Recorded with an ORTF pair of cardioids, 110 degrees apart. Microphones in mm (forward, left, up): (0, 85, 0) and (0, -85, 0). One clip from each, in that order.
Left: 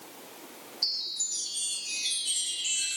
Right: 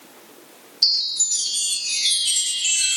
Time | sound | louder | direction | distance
0.8 | a chime | right 11 dB | 50° right | 0.5 m